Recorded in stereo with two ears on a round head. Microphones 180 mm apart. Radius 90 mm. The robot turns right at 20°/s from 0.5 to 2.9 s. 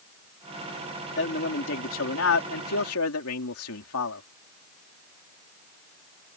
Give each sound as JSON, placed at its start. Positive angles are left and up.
{"t": 1.2, "sound": "a man speaking", "azimuth_deg": 55}